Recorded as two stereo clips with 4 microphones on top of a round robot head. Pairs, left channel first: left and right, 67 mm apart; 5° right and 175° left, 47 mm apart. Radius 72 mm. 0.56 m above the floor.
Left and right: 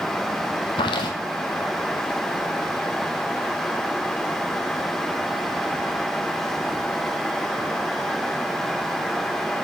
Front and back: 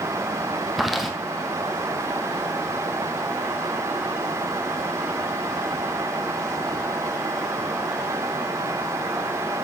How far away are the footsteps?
About 1.5 m.